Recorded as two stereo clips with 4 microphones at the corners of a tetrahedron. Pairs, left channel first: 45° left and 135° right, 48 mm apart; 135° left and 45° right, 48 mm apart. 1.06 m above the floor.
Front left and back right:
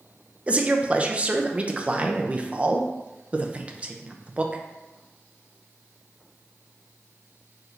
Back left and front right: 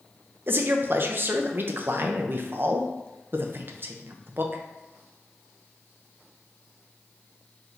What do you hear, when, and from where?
0.5 s a man speaking: 75° right, 0.5 m